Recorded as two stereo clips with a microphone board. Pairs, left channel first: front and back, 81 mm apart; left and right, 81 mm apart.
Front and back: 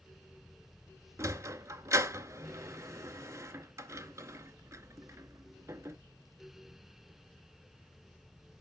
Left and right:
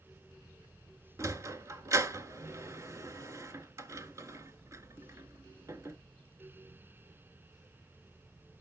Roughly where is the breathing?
No breathing in this recording.